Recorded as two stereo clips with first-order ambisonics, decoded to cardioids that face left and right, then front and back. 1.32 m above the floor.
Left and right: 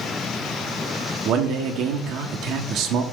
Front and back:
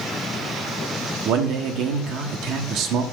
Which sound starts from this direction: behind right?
A man speaking, at 1.2 s.